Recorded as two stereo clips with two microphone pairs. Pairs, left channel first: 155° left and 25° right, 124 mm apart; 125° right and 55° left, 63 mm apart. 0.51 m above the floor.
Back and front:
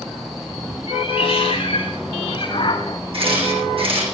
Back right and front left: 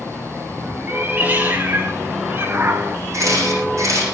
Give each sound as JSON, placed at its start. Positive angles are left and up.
{"t": 0.9, "sound": "a cat meowing", "azimuth_deg": 115, "distance_m": 4.0}
{"t": 3.1, "sound": "a camera shutter", "azimuth_deg": 15, "distance_m": 9.0}